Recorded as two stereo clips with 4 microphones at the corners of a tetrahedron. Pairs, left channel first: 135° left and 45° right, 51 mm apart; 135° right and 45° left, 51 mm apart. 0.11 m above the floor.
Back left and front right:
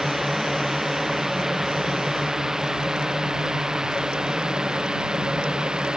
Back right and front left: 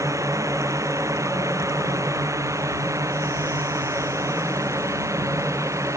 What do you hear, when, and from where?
0.0 s a drone: 40° left; by 6.0 s 30° left